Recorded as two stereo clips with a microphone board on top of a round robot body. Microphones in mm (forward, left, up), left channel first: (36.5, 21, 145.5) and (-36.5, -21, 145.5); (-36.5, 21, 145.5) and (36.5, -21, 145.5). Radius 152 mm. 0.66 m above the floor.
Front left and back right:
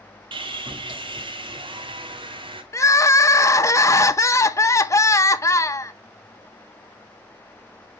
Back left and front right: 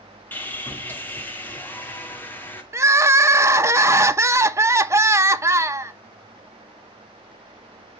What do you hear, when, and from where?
0.3 s sawing: 145° right, 2.0 m
2.7 s crying: straight ahead, 0.9 m